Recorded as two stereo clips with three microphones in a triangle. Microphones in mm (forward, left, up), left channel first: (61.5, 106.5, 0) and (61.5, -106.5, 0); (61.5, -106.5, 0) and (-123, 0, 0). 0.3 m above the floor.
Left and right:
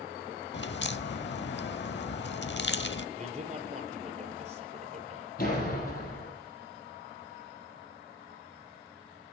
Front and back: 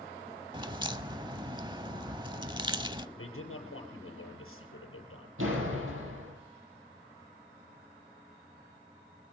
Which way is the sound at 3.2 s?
30° right.